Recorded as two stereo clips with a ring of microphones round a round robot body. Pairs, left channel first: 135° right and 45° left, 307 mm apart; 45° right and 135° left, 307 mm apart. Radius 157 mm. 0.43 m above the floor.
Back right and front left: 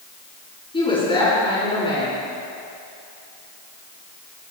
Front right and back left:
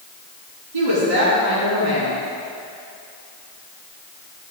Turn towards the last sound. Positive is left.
turn(degrees=150)